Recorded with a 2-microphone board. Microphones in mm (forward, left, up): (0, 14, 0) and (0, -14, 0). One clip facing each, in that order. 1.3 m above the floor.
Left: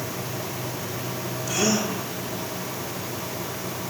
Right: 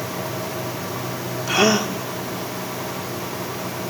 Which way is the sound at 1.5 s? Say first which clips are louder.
Right 6 dB; 50° right (ahead or behind).